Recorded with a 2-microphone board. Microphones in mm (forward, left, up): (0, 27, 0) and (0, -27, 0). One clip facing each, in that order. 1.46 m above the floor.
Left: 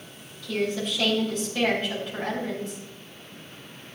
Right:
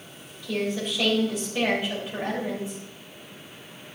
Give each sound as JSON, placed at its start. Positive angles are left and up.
{"t": 0.4, "sound": "a woman speaking", "side_deg": -10, "distance_m": 6.0}